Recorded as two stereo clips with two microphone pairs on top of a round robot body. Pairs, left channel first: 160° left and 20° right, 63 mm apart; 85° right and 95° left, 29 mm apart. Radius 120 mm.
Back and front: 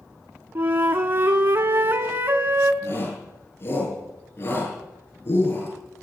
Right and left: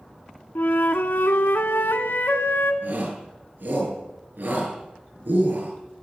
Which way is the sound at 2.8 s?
110° left.